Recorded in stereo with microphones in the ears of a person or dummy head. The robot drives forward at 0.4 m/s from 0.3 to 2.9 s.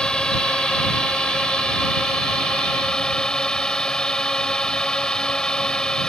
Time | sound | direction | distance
0.0 | a drone | 5° left (ahead or behind) | ?